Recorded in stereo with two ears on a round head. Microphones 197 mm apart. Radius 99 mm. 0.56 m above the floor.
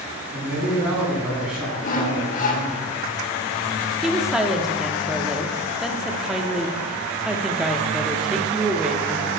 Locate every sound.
0.3 s a man speaking: 10° right (ahead or behind), 5 m; by 2.8 s centre (ahead or behind), 4 m
1.8 s sawing: 35° left (ahead or behind), 1.2 m
4.0 s a woman speaking: centre (ahead or behind), 0.9 m